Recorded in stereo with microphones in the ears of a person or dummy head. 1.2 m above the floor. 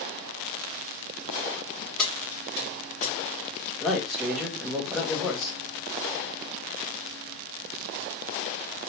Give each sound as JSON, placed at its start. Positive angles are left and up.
{"t": 2.0, "sound": "keys jangling", "side_deg": 5, "distance_m": 1.6}
{"t": 3.8, "sound": "a man speaking", "side_deg": 0, "distance_m": 0.7}